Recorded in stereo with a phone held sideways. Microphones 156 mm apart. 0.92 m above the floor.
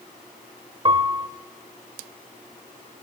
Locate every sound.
0.8 s a piano: 35° right (ahead or behind), 1.1 m